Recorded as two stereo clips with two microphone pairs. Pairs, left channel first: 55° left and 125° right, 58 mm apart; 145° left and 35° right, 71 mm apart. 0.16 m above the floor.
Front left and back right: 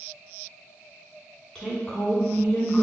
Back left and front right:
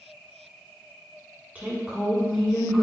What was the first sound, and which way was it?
A woman speaking, straight ahead.